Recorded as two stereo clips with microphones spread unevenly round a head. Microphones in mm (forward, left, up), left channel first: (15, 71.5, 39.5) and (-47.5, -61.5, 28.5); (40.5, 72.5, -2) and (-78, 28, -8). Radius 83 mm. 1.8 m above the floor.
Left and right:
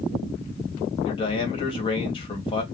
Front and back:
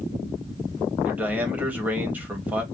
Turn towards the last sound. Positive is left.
turn(degrees=120)